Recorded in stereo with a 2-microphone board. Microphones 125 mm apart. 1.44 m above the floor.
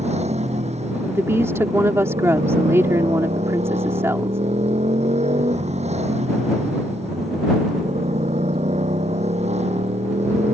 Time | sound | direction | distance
0.0 | a motorcycle | 60° right (ahead or behind) | ?
1.1 | a woman speaking | 20° right (ahead or behind) | ?